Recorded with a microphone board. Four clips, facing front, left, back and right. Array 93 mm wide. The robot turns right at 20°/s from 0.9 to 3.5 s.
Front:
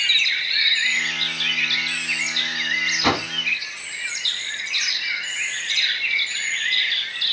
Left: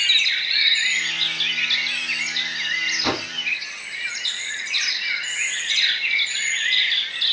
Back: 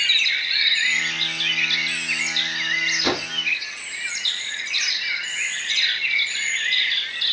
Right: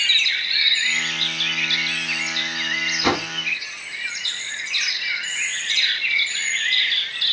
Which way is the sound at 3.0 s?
30° right.